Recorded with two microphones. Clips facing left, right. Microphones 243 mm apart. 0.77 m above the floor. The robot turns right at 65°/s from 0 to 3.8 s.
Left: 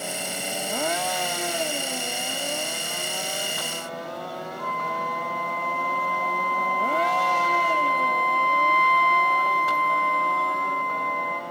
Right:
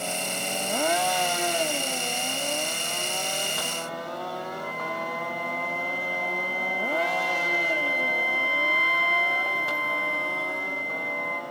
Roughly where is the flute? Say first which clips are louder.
Left 1 dB; centre.